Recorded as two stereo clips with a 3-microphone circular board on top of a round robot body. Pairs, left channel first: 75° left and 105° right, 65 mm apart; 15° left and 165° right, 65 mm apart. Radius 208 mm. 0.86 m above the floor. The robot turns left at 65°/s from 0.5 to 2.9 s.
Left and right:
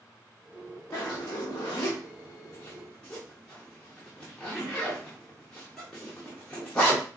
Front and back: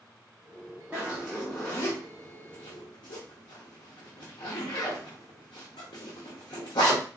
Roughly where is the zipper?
Behind left.